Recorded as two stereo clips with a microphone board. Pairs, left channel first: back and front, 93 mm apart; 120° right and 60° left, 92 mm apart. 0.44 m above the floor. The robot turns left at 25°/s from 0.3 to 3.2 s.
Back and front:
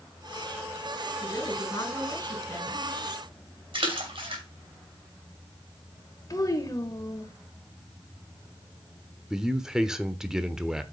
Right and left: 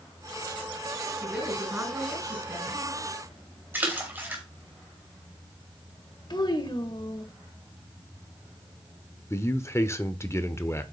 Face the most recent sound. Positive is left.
turn(degrees=-80)